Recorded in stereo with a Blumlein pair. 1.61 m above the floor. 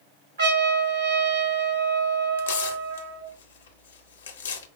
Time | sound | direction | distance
0.4 | a trumpet | 60° right | 2.5 m
2.4 | tearing paper | 60° left | 0.7 m